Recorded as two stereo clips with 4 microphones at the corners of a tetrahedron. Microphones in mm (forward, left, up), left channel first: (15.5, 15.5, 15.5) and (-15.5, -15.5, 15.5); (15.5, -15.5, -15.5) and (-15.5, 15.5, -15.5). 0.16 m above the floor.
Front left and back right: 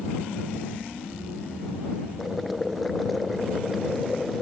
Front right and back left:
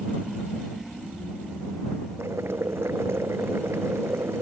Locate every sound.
2.2 s boiling: 135° left